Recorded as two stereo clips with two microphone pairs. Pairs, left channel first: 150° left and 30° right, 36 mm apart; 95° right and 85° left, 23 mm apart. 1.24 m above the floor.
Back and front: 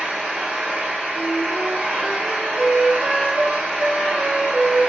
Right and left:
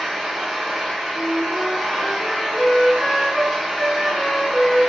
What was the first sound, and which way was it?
An engine running, 15° left.